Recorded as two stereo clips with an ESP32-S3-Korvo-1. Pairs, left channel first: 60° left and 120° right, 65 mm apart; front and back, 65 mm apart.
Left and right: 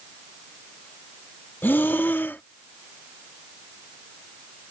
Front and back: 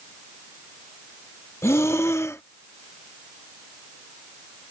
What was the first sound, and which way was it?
Breathing, 15° left.